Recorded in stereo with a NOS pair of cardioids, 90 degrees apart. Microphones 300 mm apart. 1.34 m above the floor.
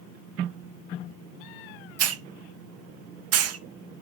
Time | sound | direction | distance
2.0 | a hiss | 55° right | 0.6 m